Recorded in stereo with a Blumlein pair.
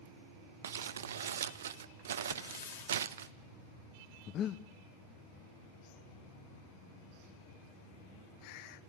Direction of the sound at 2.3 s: 70° left.